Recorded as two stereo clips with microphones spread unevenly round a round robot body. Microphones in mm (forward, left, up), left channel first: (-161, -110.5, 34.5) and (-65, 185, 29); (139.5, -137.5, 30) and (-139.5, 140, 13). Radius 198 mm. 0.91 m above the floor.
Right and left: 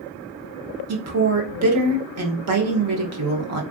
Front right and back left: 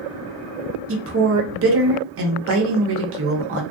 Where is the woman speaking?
90° left, 1.0 m.